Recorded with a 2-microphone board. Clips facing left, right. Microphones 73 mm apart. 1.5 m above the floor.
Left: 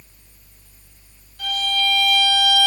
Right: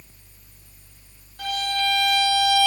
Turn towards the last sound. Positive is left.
turn(degrees=-45)  # may be behind; listen again after turning